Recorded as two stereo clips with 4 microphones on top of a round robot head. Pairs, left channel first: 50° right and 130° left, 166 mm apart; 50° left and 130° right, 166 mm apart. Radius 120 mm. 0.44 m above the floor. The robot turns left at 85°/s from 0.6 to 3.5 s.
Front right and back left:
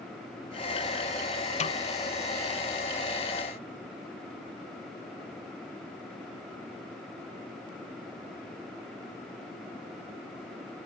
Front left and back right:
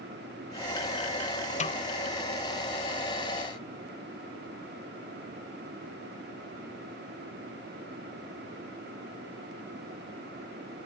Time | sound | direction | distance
1.6 | a snare drum | straight ahead | ?